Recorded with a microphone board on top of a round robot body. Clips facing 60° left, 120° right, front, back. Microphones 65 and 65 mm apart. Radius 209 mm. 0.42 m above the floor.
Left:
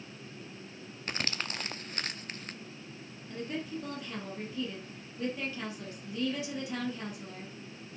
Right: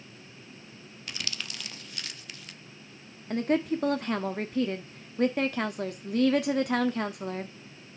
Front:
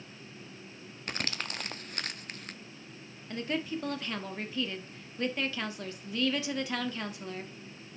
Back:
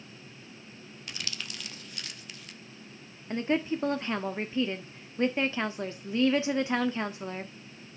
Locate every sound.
1.1 s crumpling: 25° left, 1.0 m
3.3 s a woman speaking: 120° right, 1.2 m